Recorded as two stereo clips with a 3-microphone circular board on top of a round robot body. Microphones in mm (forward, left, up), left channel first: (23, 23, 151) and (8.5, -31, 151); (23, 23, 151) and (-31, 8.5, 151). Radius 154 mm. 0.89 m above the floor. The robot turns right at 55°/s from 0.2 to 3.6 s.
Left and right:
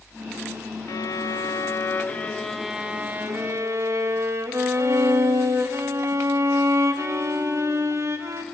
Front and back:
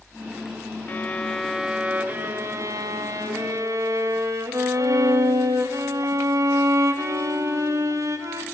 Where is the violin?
70° left, 1.4 m; by 8.4 s 140° right, 1.4 m.